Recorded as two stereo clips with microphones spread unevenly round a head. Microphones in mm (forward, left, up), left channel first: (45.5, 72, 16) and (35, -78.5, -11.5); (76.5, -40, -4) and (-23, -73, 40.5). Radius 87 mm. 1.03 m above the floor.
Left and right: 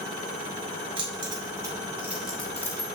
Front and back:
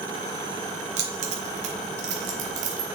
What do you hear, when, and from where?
1.0 s keys jangling: 160° right, 1.5 m; by 2.9 s 155° left, 0.9 m